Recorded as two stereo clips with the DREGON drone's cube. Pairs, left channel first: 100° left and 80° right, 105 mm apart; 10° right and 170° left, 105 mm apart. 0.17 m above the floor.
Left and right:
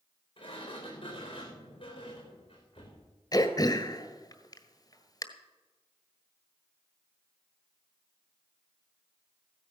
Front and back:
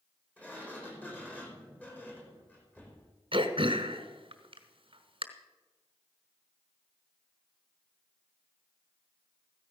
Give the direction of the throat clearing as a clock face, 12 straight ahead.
7 o'clock.